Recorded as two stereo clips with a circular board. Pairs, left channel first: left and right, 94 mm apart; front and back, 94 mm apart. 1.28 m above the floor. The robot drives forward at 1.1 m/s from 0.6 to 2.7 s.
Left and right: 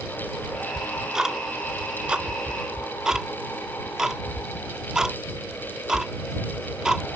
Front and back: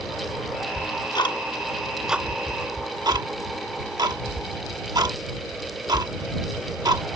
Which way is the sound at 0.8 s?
5° right.